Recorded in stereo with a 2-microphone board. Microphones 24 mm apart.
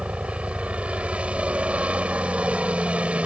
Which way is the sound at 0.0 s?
55° right (ahead or behind).